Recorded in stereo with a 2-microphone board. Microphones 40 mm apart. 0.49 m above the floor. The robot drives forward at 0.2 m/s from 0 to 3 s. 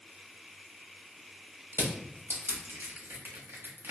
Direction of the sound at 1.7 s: 80° right.